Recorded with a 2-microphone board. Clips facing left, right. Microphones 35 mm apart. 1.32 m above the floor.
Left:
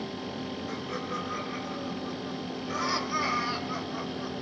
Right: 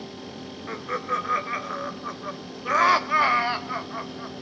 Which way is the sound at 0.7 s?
50° right (ahead or behind).